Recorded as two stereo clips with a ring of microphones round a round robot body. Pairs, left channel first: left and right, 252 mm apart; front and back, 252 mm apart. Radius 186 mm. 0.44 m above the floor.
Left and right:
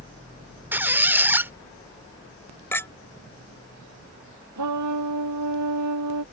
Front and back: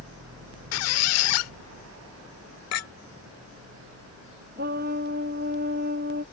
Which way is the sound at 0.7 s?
5° right.